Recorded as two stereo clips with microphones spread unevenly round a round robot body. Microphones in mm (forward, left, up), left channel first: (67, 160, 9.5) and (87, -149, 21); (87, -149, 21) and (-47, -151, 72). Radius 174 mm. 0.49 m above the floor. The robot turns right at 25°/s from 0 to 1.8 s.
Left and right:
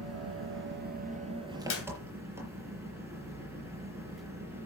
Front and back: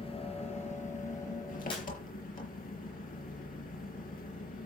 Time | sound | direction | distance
0.0 | an engine running | 50° right | 5 m
1.7 | a clap | 50° left | 3 m